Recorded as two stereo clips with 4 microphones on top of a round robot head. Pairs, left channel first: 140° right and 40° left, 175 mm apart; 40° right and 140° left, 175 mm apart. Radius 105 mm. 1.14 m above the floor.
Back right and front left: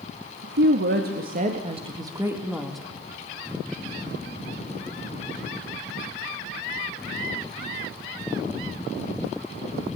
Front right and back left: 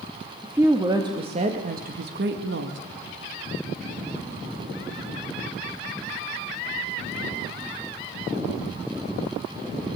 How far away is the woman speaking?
About 2.5 m.